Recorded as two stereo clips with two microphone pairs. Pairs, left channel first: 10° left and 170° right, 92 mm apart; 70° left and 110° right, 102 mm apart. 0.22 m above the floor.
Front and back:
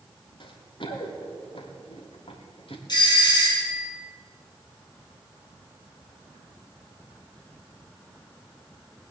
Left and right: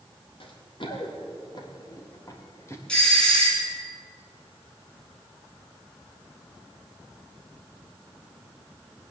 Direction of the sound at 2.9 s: 10° right.